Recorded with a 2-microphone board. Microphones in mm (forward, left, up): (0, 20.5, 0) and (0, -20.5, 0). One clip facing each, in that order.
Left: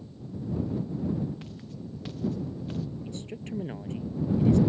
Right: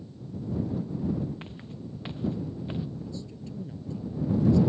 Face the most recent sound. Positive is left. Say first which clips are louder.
# left 2 dB
turn(degrees=60)  # may be behind; listen again after turning